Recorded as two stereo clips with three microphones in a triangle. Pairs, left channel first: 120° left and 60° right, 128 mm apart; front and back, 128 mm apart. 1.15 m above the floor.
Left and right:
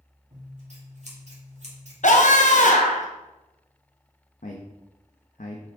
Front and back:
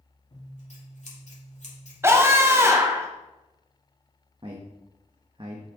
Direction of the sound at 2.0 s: 110° left.